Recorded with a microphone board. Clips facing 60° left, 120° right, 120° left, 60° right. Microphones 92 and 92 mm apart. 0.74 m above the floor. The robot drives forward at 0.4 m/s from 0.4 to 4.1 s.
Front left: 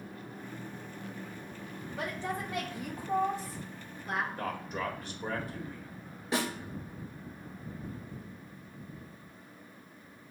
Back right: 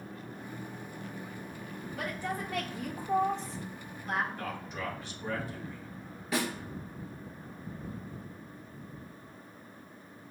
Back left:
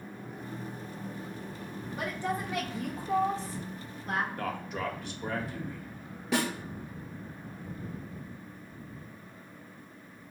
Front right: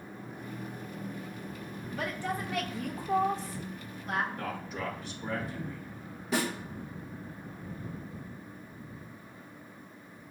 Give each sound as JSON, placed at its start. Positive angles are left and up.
{"t": 1.9, "sound": "a woman speaking", "azimuth_deg": 65, "distance_m": 1.1}
{"t": 4.4, "sound": "a man speaking", "azimuth_deg": 100, "distance_m": 1.4}
{"t": 6.3, "sound": "a snare drum", "azimuth_deg": 120, "distance_m": 2.5}